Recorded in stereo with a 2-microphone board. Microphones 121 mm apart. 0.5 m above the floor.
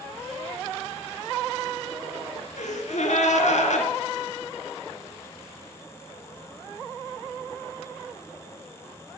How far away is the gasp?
About 1.9 m.